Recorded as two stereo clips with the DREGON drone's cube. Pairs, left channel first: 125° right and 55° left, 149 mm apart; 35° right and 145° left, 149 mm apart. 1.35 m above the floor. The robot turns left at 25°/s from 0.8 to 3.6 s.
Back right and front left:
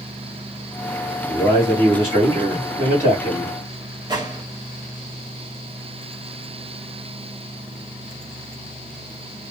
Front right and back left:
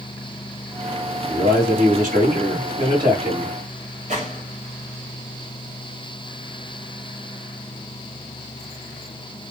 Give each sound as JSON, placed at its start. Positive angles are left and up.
{"t": 1.3, "sound": "a man speaking", "azimuth_deg": 130, "distance_m": 1.7}
{"t": 4.1, "sound": "a gunshot", "azimuth_deg": 115, "distance_m": 1.3}